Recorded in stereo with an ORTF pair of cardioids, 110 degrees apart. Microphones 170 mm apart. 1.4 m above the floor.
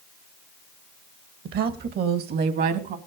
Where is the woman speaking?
65° right, 1.7 m.